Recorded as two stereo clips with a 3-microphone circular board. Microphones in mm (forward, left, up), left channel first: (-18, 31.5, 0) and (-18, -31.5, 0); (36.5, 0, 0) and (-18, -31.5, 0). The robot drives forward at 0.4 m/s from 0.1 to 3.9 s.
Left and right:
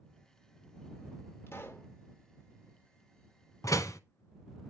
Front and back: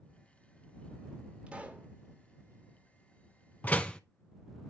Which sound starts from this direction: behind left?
A pop, at 1.5 s.